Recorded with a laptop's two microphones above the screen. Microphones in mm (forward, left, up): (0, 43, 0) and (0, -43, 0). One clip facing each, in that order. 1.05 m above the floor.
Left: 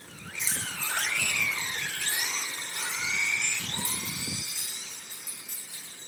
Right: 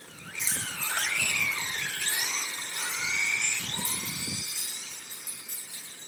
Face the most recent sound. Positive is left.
turn(degrees=65)  # may be behind; listen again after turning